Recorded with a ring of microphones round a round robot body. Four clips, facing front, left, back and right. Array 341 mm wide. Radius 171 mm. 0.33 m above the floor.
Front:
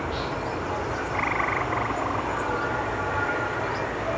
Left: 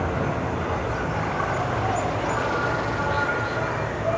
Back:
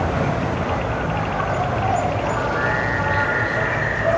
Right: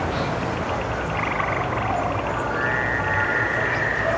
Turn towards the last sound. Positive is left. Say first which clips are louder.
# right 1 dB, back 7 dB
turn(degrees=175)